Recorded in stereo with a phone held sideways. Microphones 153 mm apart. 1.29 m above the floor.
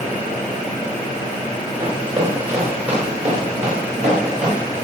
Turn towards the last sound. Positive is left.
turn(degrees=-55)  # may be behind; listen again after turning